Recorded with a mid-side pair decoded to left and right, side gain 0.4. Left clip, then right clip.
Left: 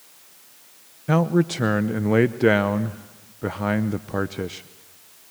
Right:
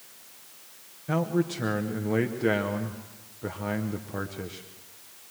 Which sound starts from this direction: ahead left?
A man speaking, at 1.1 s.